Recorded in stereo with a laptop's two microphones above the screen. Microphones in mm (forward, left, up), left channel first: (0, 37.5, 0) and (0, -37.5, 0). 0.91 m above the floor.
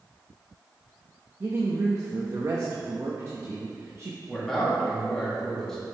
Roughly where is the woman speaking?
Right.